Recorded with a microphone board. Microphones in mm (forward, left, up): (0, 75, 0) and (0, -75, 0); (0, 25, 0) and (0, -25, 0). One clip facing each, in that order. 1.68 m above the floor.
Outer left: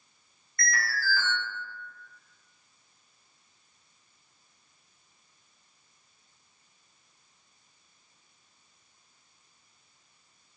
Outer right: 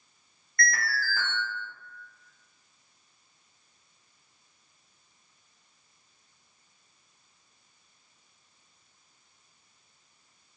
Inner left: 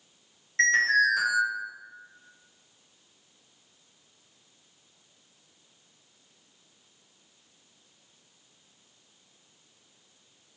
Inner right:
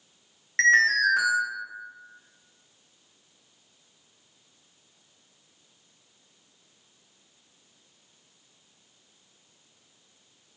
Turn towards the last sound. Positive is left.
turn(degrees=-50)  # may be behind; listen again after turning